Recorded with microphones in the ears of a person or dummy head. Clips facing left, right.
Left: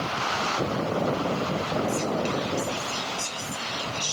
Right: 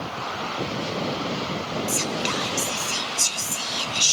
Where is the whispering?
70° right (ahead or behind), 1.1 m.